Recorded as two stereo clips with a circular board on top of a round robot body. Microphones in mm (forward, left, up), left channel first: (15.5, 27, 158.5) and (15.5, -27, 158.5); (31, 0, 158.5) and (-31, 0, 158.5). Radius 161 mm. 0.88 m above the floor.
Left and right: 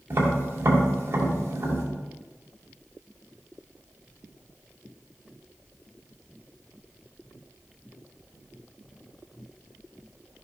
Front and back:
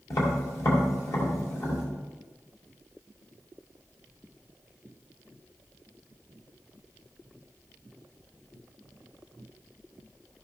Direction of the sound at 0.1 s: 40° right.